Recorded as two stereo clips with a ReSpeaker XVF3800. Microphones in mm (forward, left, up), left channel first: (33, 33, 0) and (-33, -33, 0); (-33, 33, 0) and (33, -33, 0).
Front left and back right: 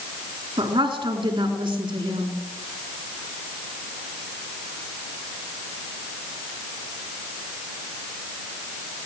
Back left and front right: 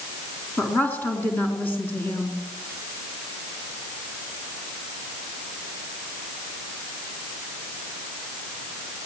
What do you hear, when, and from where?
0.6 s a woman speaking: 155° right, 4.5 m